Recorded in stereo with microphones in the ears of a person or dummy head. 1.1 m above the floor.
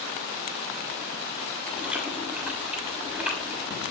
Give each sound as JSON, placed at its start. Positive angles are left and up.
{"t": 1.7, "sound": "chewing", "side_deg": -5, "distance_m": 6.0}